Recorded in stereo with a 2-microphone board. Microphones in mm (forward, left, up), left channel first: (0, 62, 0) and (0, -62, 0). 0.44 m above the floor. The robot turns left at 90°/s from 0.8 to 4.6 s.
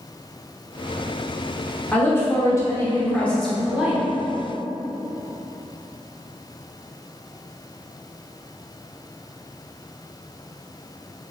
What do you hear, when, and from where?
1.9 s a woman speaking: 10° left (ahead or behind), 0.7 m; by 4.0 s 15° right (ahead or behind), 0.7 m